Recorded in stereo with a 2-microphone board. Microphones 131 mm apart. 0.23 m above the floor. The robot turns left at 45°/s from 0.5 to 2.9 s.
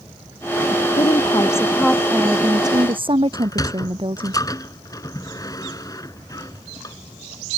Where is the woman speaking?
45° left; by 4.3 s 40° right.